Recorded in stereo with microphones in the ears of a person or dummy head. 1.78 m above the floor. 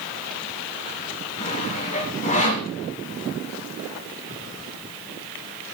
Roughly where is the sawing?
Left.